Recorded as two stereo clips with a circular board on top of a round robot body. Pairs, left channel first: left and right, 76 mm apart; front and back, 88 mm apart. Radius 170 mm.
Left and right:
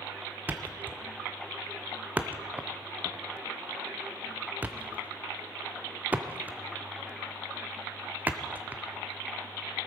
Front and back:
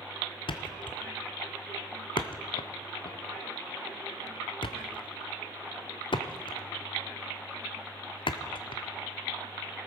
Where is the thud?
20° right, 0.7 m.